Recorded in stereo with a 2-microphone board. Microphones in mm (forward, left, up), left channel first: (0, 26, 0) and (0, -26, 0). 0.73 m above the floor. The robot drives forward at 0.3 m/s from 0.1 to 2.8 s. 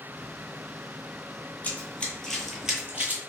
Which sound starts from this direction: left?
Running footsteps, at 1.6 s.